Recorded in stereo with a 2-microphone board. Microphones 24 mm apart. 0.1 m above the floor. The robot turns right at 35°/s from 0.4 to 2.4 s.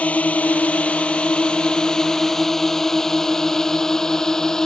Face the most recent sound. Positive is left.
turn(degrees=25)  # may be behind; listen again after turning